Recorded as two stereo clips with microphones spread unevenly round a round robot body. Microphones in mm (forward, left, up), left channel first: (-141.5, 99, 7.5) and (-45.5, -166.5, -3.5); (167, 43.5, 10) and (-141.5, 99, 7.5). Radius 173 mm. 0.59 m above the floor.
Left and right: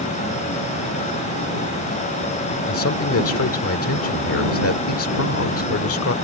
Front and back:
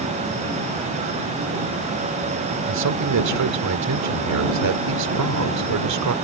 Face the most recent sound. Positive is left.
turn(degrees=145)